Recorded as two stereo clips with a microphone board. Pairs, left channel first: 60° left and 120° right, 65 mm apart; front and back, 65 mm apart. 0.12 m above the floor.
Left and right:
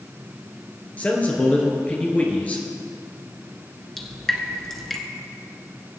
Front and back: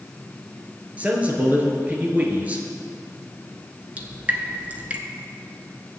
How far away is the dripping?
About 1.5 m.